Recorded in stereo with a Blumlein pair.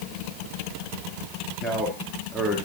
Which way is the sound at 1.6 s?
5° left.